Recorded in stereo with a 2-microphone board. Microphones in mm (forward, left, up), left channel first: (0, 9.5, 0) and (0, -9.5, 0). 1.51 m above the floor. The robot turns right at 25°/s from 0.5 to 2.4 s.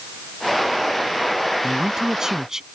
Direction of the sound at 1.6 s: 45° right (ahead or behind).